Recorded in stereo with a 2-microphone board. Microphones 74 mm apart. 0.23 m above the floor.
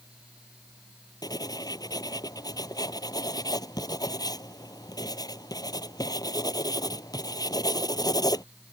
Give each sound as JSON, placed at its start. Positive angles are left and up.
{"t": 1.2, "sound": "writing", "side_deg": 60}